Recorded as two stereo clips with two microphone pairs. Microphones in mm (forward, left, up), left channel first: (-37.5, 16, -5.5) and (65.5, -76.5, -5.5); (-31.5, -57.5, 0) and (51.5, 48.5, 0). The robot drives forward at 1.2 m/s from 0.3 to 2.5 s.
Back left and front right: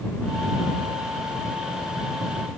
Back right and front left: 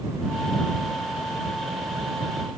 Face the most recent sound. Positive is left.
No sound to turn to.